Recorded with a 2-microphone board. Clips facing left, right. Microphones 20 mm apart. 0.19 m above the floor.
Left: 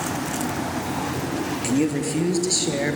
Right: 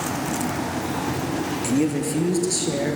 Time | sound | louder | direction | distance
1.6 | a man speaking | even | 10° left (ahead or behind) | 4 m